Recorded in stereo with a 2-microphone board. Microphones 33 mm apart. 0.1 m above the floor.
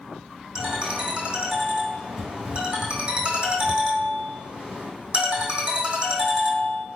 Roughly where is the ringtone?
Right.